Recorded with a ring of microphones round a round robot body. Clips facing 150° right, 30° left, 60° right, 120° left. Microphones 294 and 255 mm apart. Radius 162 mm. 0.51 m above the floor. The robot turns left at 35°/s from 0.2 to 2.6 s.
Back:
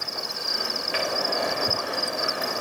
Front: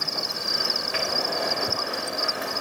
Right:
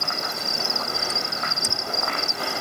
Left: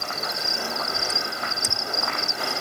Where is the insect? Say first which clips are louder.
Front 2 dB, right 1 dB; straight ahead; by 2.6 s 80° right.